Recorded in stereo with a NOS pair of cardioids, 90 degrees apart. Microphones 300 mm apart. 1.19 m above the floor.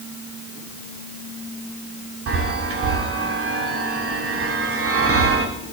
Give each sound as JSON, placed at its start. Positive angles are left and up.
{"t": 2.3, "sound": "a chime", "azimuth_deg": -50, "distance_m": 2.0}